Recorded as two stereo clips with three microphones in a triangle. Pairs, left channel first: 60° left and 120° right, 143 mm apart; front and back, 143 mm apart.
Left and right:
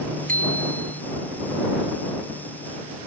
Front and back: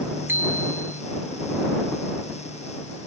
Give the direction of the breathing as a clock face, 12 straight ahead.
No breathing in this recording.